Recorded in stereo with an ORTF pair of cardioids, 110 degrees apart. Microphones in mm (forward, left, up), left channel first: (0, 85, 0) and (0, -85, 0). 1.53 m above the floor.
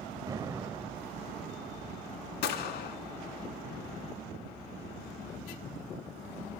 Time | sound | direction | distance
0.3 | an explosion | 20° right | 0.5 m
2.4 | a gunshot | 70° left | 1.4 m